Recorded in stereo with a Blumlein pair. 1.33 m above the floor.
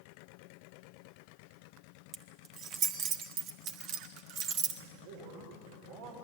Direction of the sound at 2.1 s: 35° right.